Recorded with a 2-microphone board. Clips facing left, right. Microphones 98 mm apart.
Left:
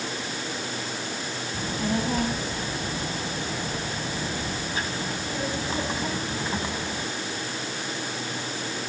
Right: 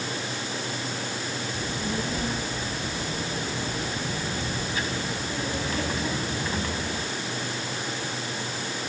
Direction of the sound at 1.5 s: 60° left (ahead or behind).